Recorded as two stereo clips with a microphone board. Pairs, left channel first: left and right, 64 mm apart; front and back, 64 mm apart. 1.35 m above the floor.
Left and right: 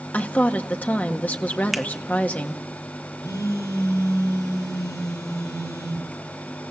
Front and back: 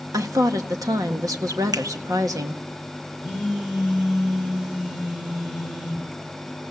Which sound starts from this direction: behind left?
A woman speaking, at 0.1 s.